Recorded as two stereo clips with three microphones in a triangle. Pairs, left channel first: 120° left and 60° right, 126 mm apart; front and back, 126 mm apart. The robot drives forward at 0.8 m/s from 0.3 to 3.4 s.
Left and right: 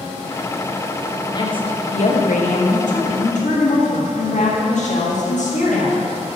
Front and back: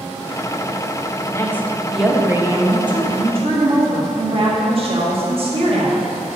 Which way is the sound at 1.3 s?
65° left.